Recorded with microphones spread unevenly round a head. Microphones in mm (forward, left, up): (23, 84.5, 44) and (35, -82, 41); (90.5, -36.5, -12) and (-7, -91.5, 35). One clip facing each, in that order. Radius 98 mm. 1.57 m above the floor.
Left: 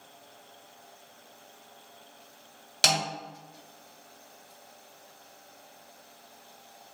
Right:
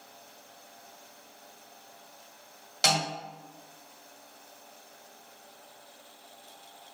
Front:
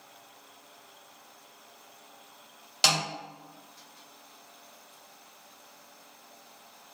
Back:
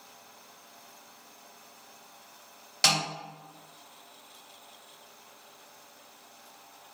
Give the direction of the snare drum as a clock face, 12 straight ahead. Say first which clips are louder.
Right 1 dB, even; 8 o'clock.